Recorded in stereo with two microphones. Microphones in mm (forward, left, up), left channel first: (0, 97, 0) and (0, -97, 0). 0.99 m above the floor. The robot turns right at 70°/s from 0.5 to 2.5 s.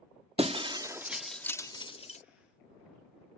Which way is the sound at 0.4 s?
30° right (ahead or behind).